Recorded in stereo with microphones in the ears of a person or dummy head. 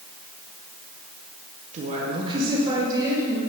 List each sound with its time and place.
1.7 s a woman speaking: 45° right (ahead or behind), 1.2 m; by 3.4 s 20° right (ahead or behind), 2 m